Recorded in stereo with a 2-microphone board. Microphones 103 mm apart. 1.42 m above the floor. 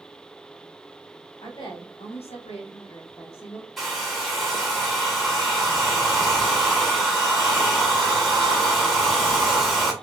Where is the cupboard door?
I don't hear a cupboard door.